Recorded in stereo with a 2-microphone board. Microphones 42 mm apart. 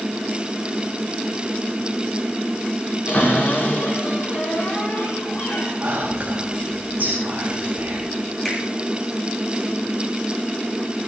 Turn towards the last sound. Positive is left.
turn(degrees=5)  # may be behind; listen again after turning